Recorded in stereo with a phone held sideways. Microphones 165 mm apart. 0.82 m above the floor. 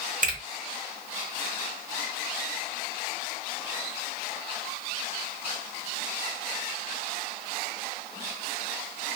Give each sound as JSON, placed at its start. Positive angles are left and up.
{"t": 0.2, "sound": "a finger snap", "side_deg": -55, "distance_m": 1.2}